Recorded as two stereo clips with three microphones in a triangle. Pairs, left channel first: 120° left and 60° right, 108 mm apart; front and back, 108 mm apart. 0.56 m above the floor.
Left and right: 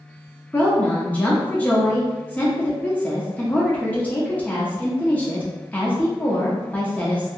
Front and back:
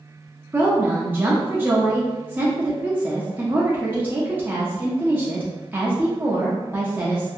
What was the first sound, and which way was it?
A woman speaking, 160° left.